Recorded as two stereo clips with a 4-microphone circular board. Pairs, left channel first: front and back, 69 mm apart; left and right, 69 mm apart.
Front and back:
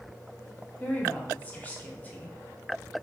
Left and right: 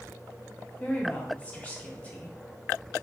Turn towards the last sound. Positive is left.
turn(degrees=45)